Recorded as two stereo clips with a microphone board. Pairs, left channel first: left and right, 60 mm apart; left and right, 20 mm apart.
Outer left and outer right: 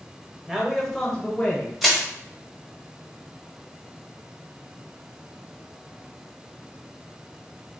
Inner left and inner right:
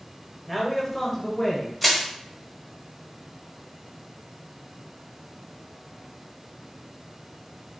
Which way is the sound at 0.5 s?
10° right (ahead or behind).